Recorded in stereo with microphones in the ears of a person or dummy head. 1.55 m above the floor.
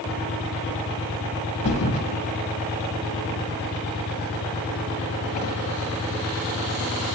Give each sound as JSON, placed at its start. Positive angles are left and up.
{"t": 1.6, "sound": "a thud", "side_deg": 40, "distance_m": 2.0}